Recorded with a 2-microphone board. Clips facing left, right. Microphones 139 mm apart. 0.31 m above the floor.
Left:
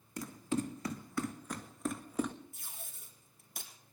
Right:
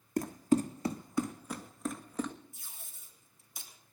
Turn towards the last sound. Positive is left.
turn(degrees=60)  # may be behind; listen again after turning